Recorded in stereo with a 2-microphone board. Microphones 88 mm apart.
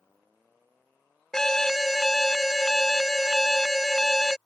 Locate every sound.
1.3 s an alarm: 5° left (ahead or behind)